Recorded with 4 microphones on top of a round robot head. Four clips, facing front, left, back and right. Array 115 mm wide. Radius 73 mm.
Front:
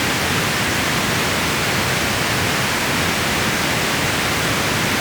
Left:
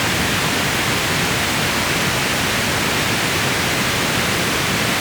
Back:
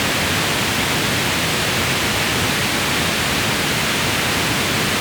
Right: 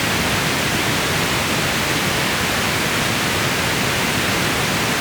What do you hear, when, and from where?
Only background noise.